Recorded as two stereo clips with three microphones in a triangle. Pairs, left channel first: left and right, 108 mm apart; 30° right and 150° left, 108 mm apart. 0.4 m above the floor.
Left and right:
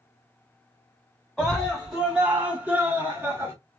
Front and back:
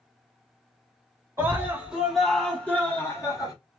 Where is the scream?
Straight behind, 1.2 m; by 3.5 s 45° right, 1.3 m.